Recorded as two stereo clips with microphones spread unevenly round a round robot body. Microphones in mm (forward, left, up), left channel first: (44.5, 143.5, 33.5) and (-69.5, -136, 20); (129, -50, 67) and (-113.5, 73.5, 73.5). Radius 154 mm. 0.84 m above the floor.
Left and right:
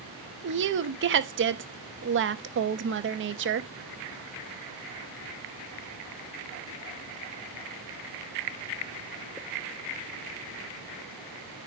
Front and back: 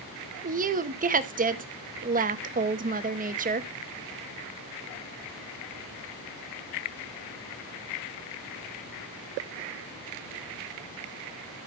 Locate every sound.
0.4 s a woman speaking: 150° right, 1.1 m